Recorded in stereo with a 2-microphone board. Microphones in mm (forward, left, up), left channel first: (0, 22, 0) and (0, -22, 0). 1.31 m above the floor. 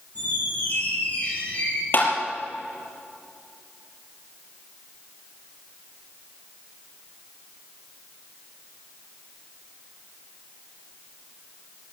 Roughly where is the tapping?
Left.